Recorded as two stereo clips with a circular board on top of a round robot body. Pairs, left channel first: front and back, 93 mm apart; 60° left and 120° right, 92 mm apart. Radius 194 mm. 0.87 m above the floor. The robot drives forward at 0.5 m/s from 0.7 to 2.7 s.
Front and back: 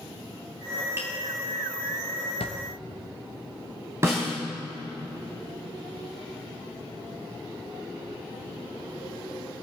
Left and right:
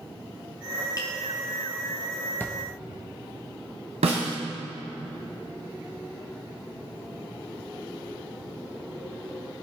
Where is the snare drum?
115° right, 1.4 m.